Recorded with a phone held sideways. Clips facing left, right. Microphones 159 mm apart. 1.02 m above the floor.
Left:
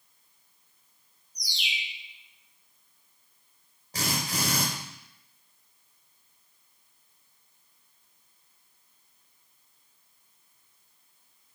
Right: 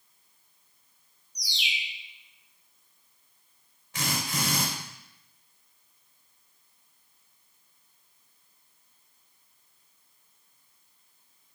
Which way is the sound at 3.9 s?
40° left (ahead or behind).